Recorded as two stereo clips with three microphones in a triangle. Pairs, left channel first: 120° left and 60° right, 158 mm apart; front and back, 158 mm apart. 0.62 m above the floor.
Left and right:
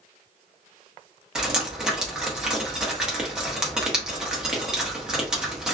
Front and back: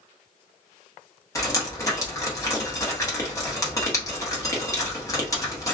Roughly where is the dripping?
Ahead.